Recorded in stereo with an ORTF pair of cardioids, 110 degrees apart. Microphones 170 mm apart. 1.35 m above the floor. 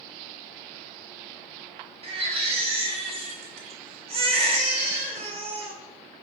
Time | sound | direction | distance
2.0 | a baby crying | 35° right | 3 m